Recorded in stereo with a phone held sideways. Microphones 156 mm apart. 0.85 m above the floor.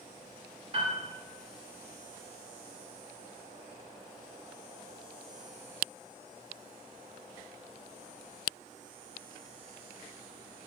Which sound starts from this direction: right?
A piano, at 0.7 s.